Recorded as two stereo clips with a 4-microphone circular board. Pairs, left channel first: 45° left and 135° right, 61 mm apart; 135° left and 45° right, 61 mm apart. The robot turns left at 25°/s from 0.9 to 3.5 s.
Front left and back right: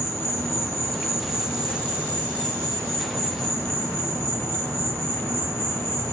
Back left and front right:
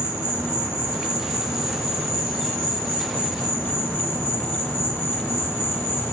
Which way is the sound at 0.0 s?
35° right.